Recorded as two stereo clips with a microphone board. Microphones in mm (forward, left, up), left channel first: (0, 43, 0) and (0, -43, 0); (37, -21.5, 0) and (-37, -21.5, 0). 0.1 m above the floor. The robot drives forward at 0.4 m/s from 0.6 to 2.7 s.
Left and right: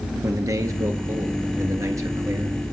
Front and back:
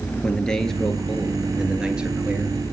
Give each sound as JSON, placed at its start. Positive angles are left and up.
{"t": 0.2, "sound": "a man speaking", "azimuth_deg": -75, "distance_m": 1.5}